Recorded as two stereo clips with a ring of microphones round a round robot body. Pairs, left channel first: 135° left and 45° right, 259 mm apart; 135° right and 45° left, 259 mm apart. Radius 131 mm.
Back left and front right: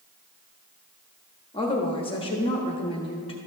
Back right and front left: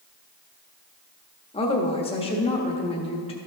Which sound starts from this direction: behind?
A woman speaking, at 1.5 s.